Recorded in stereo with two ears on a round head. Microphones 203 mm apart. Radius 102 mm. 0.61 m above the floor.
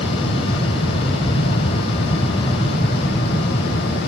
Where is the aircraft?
25° left (ahead or behind).